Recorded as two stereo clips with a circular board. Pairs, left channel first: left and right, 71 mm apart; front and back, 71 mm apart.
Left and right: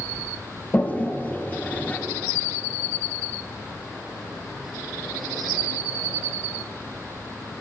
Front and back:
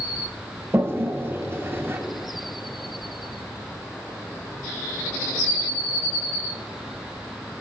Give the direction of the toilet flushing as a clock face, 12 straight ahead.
7 o'clock.